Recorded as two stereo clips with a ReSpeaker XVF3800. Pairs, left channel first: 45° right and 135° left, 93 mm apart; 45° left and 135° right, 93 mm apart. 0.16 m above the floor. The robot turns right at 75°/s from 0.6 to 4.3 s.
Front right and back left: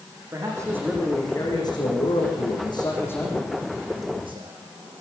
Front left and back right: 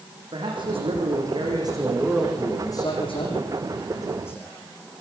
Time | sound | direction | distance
0.3 | a man speaking | 165° right | 8.5 m